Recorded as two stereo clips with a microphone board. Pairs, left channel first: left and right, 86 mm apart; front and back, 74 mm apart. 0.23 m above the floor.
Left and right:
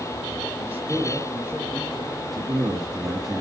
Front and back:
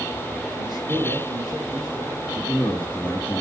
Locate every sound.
0.6 s a man speaking: 160° right, 5.5 m
2.2 s a man speaking: 65° right, 2.5 m